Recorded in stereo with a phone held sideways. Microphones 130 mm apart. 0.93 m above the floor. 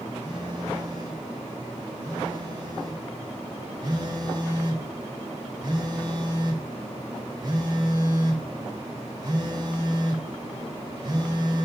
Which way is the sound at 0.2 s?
35° right (ahead or behind).